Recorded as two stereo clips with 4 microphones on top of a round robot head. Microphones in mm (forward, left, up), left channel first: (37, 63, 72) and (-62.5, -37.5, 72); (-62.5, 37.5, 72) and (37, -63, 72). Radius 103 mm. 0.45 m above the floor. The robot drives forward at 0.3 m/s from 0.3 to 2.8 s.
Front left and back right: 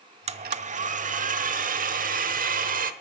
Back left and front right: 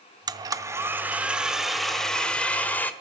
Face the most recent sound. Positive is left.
turn(degrees=-150)